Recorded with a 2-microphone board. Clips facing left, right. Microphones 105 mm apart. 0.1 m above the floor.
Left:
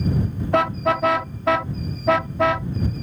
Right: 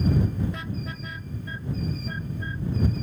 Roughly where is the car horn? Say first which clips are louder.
Left 16 dB; left.